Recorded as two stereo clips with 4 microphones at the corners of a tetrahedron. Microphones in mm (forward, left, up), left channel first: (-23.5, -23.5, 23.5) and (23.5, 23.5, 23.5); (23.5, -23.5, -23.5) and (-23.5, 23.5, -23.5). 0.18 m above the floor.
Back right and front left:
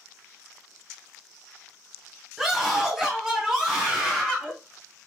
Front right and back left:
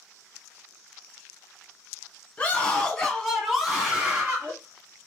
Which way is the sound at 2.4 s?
30° right.